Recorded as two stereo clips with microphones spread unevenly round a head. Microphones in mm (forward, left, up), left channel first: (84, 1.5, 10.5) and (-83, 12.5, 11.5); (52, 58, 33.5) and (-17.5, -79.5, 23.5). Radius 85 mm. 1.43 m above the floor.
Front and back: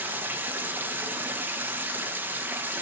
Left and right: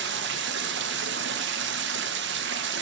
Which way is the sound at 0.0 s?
105° right.